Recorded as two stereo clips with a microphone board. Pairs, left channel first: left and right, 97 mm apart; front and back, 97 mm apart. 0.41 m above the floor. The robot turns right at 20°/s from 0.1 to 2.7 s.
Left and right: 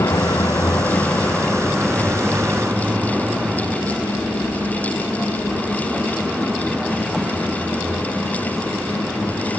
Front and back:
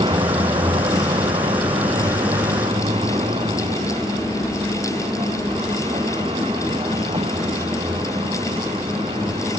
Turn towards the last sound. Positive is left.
turn(degrees=-175)